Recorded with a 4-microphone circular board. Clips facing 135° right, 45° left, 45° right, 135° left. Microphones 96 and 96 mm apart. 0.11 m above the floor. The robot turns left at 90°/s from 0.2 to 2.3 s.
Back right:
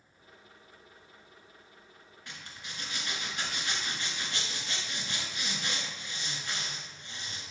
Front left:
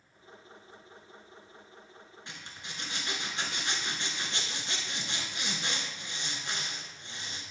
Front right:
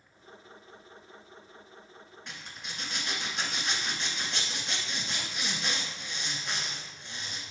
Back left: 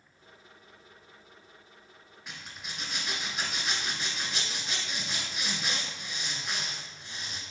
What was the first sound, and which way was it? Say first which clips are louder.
A zipper: back right 1 dB, back left 1 dB; 60° left.